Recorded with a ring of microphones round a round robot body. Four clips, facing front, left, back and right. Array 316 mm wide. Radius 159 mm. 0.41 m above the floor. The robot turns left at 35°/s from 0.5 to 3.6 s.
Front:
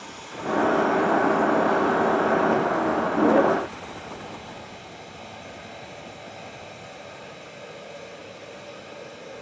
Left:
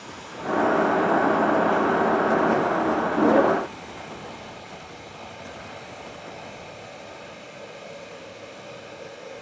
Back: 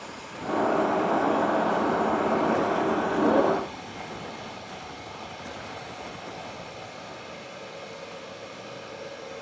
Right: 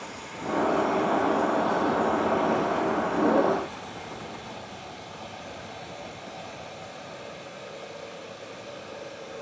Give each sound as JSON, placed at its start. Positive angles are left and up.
{"t": 0.0, "sound": "running water", "azimuth_deg": -45, "distance_m": 2.5}